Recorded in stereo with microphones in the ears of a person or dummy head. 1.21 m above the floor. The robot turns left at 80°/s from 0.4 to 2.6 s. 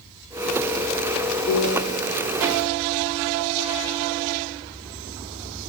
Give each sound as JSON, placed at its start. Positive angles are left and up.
{"t": 1.5, "sound": "a piano", "azimuth_deg": 100, "distance_m": 2.0}